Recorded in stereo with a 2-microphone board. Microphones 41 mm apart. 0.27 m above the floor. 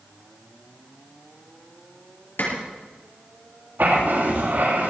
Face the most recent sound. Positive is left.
turn(degrees=-65)  # may be behind; listen again after turning